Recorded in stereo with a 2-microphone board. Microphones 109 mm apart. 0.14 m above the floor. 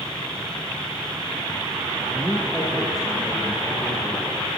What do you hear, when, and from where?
2.1 s a man speaking: centre (ahead or behind), 6.5 m